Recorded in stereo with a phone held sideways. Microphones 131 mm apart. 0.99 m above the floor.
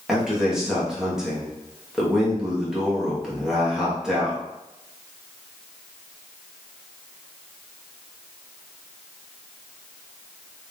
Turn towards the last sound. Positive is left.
turn(degrees=-5)  # may be behind; listen again after turning